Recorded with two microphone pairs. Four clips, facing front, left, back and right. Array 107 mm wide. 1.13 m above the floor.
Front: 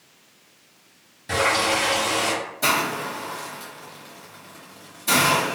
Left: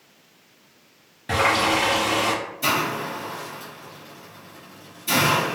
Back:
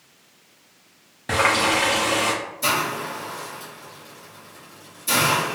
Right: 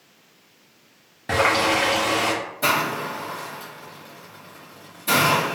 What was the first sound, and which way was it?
A running tap, 140° right.